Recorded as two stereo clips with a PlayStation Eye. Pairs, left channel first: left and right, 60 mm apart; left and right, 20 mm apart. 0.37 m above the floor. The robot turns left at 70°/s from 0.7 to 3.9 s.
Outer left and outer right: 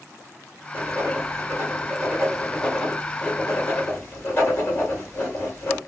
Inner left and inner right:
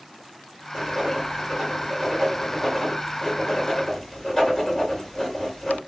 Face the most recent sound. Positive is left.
turn(degrees=35)  # may be behind; listen again after turning